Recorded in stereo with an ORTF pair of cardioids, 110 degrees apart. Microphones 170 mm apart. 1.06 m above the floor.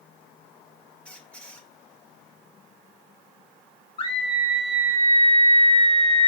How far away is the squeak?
About 1.2 m.